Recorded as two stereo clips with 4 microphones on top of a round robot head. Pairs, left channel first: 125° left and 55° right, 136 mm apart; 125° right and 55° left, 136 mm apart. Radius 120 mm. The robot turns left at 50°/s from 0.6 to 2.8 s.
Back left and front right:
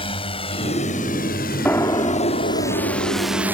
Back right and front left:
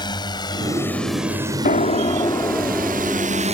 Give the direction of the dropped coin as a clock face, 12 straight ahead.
I don't hear a dropped coin.